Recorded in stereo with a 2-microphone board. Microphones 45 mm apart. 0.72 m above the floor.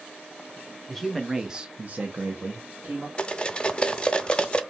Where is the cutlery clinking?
20° left (ahead or behind), 0.5 m.